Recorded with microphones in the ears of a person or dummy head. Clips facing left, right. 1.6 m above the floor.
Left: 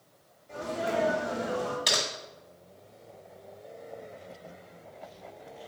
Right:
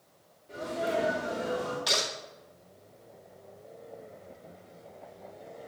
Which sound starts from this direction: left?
Typing on a keyboard, at 1.9 s.